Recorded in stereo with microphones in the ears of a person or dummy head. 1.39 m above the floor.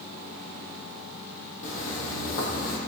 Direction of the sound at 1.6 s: 50° left (ahead or behind).